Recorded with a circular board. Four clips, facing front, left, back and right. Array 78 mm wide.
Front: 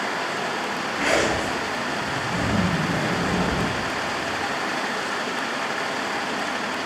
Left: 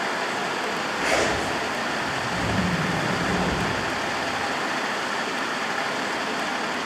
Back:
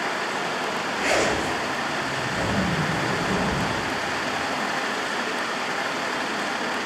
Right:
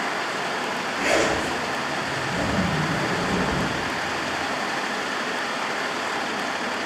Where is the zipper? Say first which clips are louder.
Right 2 dB, front 1 dB; 5° right, 7 m.